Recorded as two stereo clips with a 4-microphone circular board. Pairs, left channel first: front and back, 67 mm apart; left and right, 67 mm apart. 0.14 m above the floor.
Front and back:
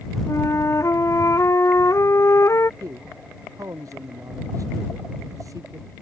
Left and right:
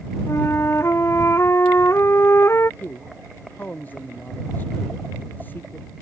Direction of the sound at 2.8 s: 150° left.